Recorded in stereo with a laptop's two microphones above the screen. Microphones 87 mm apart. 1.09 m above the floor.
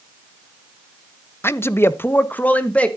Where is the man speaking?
25° left (ahead or behind), 0.6 m; by 2.9 s 15° left (ahead or behind), 0.9 m.